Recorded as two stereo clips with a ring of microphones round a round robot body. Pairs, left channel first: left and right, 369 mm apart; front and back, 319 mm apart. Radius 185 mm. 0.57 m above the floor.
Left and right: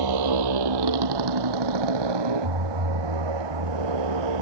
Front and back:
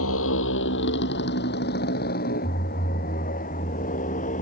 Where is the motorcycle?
60° right; by 4.4 s 70° right.